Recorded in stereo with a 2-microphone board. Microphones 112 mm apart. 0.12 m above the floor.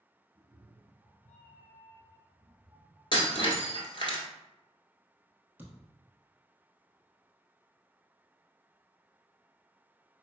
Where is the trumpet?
No trumpet in this recording.